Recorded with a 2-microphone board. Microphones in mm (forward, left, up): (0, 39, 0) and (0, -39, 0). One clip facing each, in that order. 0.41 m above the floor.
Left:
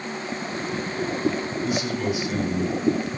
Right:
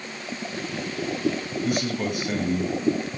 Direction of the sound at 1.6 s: 45° right (ahead or behind).